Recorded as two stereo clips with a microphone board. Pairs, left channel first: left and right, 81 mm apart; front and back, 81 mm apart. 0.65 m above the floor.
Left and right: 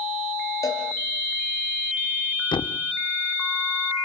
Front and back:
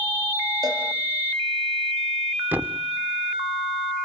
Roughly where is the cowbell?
Behind left.